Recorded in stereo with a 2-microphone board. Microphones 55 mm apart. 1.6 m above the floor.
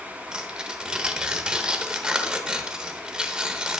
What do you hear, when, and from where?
0.3 s tearing paper: 15° right (ahead or behind), 0.9 m